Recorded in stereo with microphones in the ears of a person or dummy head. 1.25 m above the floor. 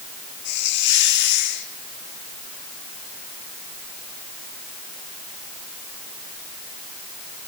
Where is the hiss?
60° left (ahead or behind), 1.9 m.